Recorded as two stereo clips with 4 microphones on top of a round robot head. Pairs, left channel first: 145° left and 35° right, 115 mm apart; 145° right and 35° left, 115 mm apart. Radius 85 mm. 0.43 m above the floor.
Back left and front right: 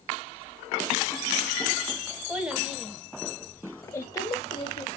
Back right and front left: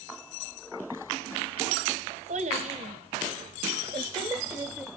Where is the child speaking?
45° left, 2.5 m; by 4.9 s 105° left, 1.7 m.